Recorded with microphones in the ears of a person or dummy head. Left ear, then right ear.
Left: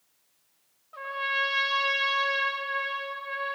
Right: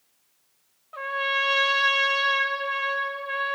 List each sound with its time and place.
0.9 s a trumpet: 25° right (ahead or behind), 1.8 m